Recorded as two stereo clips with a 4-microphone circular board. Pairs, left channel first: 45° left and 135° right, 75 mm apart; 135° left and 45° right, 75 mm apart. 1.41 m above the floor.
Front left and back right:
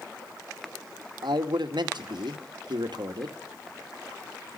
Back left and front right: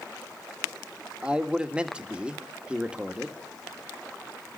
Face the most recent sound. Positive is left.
turn(degrees=-120)